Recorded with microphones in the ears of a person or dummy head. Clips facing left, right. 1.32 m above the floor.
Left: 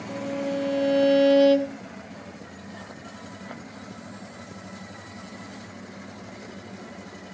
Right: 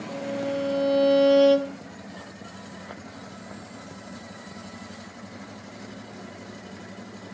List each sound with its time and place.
0.1 s a violin: centre (ahead or behind), 2.0 m